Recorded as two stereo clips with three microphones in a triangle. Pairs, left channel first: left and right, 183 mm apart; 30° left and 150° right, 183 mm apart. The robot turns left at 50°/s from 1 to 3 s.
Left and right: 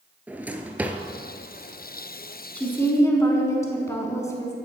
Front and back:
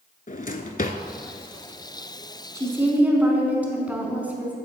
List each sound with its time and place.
0.3 s a drawer: 10° right, 0.5 m
2.5 s a woman speaking: 165° left, 1.1 m; by 4.5 s 140° left, 1.1 m